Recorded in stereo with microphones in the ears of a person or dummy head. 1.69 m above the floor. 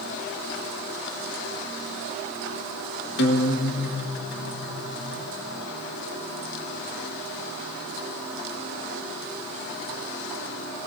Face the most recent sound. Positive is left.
turn(degrees=55)  # may be behind; listen again after turning